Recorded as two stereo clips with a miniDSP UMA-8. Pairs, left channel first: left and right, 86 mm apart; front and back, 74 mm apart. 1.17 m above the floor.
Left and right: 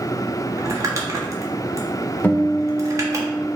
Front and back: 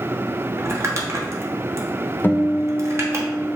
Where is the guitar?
35° left, 0.5 m.